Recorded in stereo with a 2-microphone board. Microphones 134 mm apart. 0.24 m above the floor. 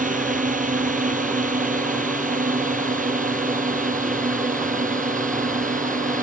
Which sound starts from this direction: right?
A drone, at 0.0 s.